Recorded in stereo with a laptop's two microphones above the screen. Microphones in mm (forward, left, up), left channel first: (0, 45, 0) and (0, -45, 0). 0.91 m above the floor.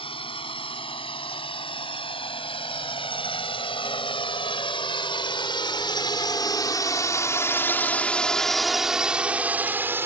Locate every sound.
0.0 s a drone: 85° left; by 10.1 s 25° right (ahead or behind)